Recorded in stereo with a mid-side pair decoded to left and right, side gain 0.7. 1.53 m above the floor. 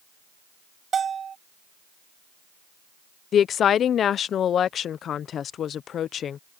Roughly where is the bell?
Ahead right.